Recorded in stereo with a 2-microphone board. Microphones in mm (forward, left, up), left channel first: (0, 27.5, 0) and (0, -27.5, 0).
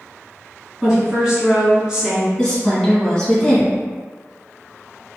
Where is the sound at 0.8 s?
10° right (ahead or behind), 1.6 m.